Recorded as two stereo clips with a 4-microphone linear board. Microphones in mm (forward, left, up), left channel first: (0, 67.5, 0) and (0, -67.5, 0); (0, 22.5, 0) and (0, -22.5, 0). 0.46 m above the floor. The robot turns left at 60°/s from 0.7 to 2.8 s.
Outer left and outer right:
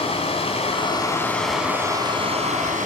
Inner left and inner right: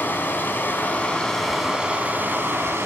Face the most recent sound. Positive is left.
turn(degrees=-80)